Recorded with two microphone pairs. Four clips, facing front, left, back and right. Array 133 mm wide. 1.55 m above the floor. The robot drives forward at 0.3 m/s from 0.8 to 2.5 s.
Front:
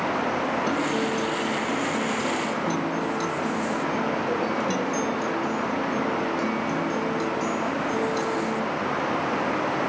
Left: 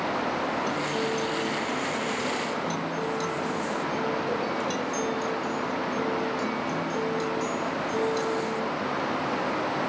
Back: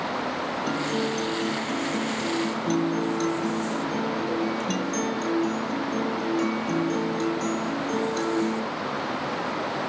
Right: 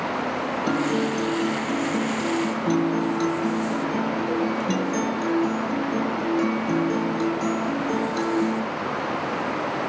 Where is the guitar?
90° right, 2.5 m; by 8.7 s 100° right, 2.5 m.